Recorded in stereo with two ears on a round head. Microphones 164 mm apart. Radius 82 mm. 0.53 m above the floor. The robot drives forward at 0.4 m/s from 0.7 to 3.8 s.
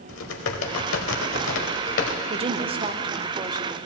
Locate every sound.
0.1 s typing on a keyboard: 80° left, 1.2 m; by 2.2 s 65° left (ahead or behind), 1.4 m
2.3 s a woman speaking: 30° right (ahead or behind), 0.7 m; by 3.8 s 20° right (ahead or behind), 1.1 m